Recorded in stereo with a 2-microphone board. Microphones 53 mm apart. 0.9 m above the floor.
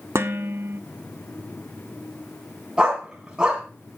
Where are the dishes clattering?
60° right (ahead or behind), 1.0 m.